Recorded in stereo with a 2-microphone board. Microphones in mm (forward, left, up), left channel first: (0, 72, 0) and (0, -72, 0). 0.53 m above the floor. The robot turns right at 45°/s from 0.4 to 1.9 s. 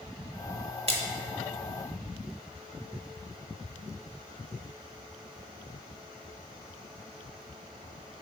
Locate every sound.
0.9 s a splash: 45° right (ahead or behind), 0.9 m; by 1.0 s 35° right (ahead or behind), 0.9 m